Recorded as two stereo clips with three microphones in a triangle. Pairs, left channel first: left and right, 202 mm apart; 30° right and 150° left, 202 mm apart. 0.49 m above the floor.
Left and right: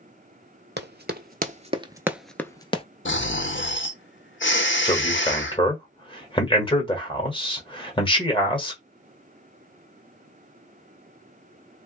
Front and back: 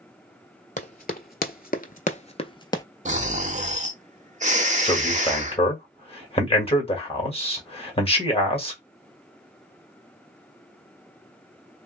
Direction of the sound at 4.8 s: 25° left.